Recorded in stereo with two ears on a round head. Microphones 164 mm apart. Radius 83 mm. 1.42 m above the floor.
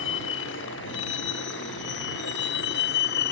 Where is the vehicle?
70° left (ahead or behind); by 3.3 s 55° left (ahead or behind).